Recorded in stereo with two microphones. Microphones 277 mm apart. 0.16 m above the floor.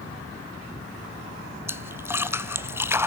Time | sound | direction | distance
1.7 | a splash | 10° right (ahead or behind) | 0.9 m